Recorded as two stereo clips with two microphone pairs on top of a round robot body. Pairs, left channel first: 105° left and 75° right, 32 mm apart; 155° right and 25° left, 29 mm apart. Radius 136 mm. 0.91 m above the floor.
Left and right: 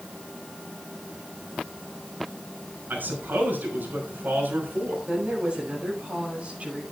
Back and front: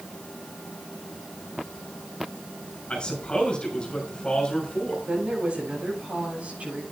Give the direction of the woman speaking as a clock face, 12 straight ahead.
1 o'clock.